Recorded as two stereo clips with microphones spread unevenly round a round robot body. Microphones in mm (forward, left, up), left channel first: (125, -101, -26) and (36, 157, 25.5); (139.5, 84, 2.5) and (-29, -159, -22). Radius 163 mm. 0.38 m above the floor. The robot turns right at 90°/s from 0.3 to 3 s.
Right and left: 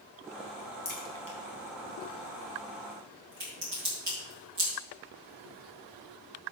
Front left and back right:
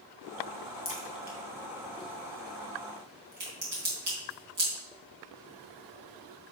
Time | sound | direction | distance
0.8 | a crack | 20° right | 3.5 m